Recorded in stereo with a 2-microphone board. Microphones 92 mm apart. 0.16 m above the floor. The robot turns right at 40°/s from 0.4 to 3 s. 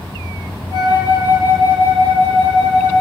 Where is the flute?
60° left, 1.8 m; by 3.0 s 155° left, 1.8 m.